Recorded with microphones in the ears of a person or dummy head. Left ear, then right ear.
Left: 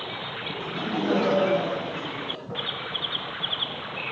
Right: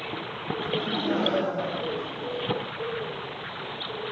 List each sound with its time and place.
0.6 s laughter: 25° left (ahead or behind), 1.5 m; by 2.6 s 35° left (ahead or behind), 0.9 m